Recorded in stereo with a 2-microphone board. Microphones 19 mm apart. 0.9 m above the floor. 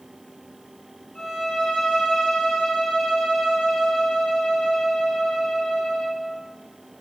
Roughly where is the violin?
Left.